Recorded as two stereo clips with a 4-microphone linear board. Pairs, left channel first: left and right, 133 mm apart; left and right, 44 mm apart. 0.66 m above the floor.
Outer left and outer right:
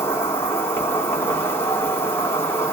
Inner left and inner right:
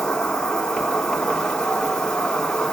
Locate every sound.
0.0 s an insect: 20° left (ahead or behind), 0.9 m